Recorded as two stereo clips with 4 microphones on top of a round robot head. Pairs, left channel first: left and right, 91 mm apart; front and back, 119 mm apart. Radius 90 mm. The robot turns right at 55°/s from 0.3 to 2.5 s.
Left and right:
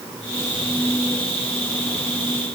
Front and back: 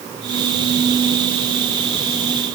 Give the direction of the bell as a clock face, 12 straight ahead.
No bell in this recording.